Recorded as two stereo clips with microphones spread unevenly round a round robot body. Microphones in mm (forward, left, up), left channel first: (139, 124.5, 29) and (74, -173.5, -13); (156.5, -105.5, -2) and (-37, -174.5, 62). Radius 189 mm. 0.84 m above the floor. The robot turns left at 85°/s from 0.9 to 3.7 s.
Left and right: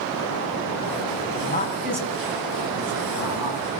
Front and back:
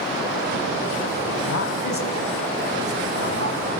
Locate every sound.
1.4 s a man speaking: 25° left, 6 m; by 3.7 s 170° right, 6 m